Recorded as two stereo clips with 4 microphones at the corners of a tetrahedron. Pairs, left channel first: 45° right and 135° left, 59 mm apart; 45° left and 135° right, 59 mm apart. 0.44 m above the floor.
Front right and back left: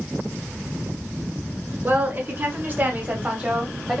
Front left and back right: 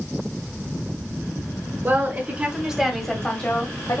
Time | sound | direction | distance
1.8 | a woman speaking | straight behind | 1.4 m